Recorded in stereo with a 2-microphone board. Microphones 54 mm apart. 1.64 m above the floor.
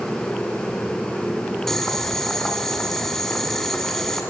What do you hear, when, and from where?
1.7 s boiling: 5° left (ahead or behind), 1.4 m